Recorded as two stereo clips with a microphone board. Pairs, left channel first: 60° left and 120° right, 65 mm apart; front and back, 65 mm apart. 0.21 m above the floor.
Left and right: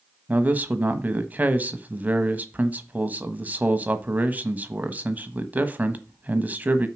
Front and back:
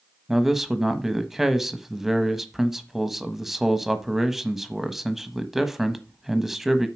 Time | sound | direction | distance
0.3 | a man speaking | 100° right | 1.1 m